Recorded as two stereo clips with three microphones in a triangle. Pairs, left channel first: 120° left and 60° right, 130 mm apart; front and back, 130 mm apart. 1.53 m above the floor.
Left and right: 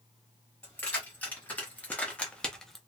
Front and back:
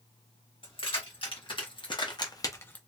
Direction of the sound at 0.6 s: 45° left.